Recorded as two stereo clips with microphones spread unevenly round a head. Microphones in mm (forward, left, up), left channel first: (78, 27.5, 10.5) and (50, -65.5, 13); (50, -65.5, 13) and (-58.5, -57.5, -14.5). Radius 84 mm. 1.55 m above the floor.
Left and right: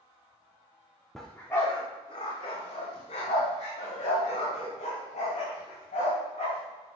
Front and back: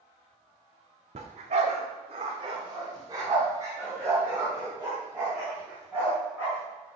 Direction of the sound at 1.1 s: 160° left.